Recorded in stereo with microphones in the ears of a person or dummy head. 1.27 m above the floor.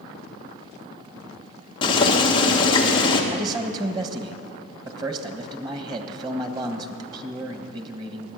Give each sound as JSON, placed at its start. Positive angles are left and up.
{"t": 1.8, "sound": "boiling", "side_deg": 20, "distance_m": 1.3}
{"t": 3.3, "sound": "a man speaking", "side_deg": -25, "distance_m": 1.5}